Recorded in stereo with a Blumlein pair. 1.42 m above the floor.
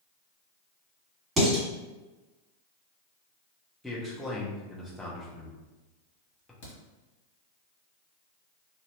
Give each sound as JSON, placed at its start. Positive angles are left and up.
{"t": 1.4, "sound": "dishes clattering", "azimuth_deg": -20, "distance_m": 1.5}
{"t": 3.8, "sound": "a man speaking", "azimuth_deg": 5, "distance_m": 0.8}
{"t": 6.6, "sound": "a crack", "azimuth_deg": 50, "distance_m": 1.1}